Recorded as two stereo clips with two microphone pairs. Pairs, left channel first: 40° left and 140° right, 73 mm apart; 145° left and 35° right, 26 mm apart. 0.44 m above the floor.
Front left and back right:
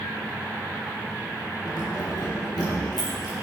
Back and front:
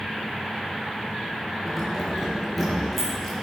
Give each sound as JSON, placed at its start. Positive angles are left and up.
{"t": 1.6, "sound": "keys jangling", "azimuth_deg": 55, "distance_m": 3.5}